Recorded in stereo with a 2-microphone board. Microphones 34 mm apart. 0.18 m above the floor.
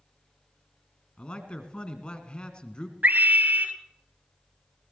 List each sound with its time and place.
1.2 s a man speaking: 35° left (ahead or behind), 1.8 m
3.0 s a scream: 65° right (ahead or behind), 2.5 m